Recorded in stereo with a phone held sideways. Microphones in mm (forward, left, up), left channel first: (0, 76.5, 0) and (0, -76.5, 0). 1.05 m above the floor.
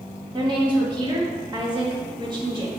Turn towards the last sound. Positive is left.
turn(degrees=-30)  # may be behind; listen again after turning